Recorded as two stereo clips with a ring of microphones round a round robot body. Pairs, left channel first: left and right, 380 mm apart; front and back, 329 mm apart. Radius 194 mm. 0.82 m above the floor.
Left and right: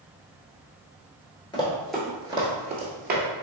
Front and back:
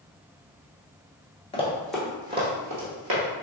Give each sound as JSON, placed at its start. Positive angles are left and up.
{"t": 1.5, "sound": "running footsteps", "azimuth_deg": 35, "distance_m": 0.8}